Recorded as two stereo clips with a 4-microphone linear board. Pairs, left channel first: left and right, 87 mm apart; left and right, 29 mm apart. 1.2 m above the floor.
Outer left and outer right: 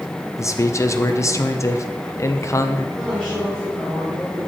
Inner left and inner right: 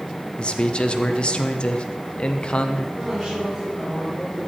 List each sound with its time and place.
0.4 s a man speaking: 35° left (ahead or behind), 0.6 m
3.0 s a woman speaking: 10° right (ahead or behind), 4 m